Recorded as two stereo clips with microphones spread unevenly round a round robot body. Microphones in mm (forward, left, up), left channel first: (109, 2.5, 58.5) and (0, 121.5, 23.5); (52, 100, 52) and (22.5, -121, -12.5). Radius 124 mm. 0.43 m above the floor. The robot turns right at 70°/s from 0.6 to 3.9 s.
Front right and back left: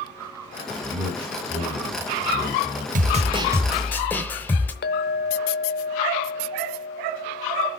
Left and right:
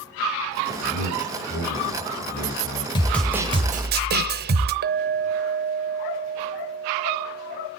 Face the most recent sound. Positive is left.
turn(degrees=-75)